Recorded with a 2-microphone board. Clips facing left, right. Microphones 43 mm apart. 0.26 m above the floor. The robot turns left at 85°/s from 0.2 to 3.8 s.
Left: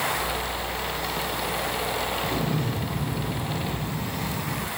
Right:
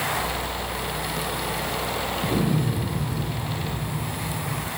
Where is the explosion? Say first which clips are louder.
Right 3 dB; 150° right, 2.5 m; by 4.7 s 75° left, 2.5 m.